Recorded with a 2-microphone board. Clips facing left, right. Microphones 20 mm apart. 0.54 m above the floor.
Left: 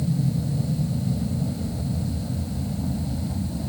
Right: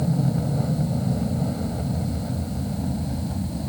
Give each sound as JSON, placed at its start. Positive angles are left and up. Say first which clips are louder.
{"t": 0.0, "sound": "an aircraft", "louder": "right 2 dB", "side_deg": -55}